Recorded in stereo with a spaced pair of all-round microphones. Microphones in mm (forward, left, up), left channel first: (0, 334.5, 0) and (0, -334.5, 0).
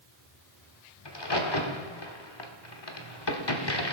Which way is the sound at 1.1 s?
35° left (ahead or behind).